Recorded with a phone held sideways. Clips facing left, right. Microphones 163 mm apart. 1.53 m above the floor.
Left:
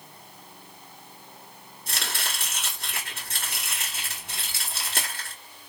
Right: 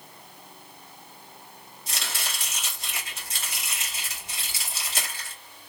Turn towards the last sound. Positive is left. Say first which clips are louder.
# left 2 dB
turn(degrees=60)  # may be behind; listen again after turning